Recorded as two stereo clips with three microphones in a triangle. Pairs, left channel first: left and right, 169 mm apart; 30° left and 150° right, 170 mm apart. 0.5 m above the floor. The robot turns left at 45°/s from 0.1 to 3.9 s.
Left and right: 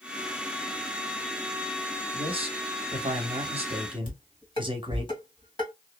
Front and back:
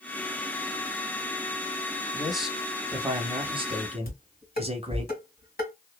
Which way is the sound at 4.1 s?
35° left.